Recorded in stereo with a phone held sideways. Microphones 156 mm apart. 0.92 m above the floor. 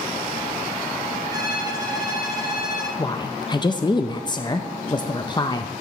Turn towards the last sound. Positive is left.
turn(degrees=30)  # may be behind; listen again after turning